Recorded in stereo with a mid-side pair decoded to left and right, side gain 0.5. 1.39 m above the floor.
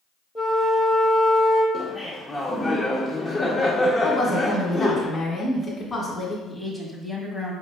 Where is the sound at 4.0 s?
30° left, 1.6 m.